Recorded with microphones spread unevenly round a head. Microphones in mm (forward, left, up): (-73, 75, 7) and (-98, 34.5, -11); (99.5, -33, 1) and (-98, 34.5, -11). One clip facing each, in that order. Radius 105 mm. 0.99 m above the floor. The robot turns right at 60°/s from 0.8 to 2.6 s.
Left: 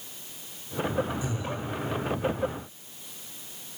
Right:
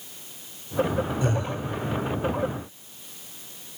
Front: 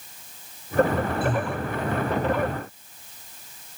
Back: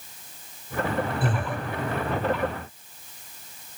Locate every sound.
1.2 s breathing: 145° right, 5 m; by 1.6 s 125° right, 5 m